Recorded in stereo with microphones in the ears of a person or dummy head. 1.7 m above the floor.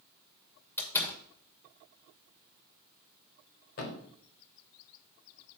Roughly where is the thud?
Left.